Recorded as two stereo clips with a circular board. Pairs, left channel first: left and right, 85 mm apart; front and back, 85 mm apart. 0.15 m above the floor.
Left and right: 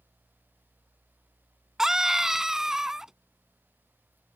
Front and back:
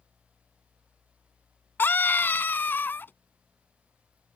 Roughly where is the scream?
Ahead.